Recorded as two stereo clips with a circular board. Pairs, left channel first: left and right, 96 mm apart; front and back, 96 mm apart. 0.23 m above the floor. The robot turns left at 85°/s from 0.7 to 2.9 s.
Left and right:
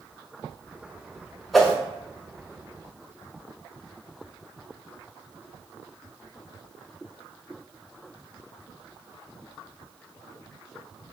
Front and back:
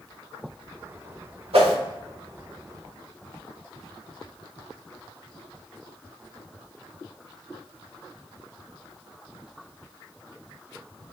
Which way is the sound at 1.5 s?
Straight behind.